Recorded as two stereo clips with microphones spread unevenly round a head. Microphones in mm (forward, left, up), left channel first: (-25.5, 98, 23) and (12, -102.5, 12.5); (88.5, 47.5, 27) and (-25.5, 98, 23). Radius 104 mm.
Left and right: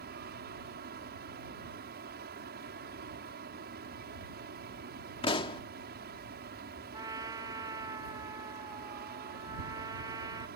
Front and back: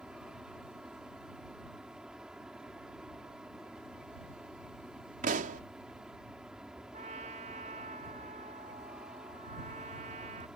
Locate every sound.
0.0 s a fan: 115° right
5.2 s a pop: 165° left
6.9 s a trumpet: 150° right